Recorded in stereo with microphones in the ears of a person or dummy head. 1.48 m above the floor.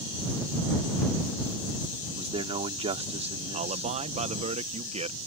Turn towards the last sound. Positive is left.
turn(degrees=-40)  # may be behind; listen again after turning